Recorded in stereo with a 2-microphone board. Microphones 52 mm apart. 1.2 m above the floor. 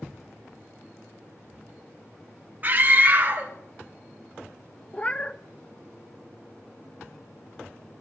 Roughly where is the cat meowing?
Left.